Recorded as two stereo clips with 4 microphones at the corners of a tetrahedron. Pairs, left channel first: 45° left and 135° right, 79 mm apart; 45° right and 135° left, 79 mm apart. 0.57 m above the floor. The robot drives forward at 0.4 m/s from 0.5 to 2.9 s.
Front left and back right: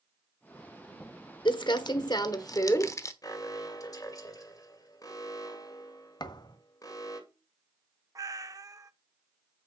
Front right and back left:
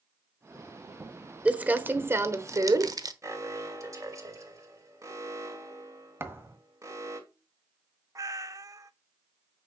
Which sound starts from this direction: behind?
A cat meowing, at 8.2 s.